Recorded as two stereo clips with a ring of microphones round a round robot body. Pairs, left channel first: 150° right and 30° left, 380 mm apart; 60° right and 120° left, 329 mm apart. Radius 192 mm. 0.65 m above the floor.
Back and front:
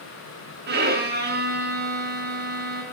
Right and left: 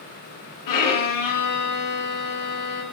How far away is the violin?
About 3.5 m.